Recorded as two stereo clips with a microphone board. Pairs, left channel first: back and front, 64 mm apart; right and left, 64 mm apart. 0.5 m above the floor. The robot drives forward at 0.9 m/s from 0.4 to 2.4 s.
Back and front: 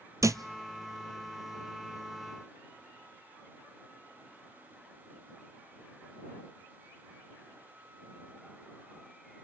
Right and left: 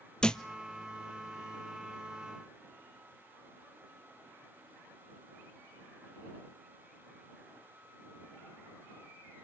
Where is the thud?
15° right, 0.8 m.